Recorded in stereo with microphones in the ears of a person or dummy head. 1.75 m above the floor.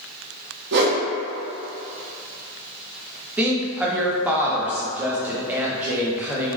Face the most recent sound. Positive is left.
turn(degrees=-10)  # may be behind; listen again after turning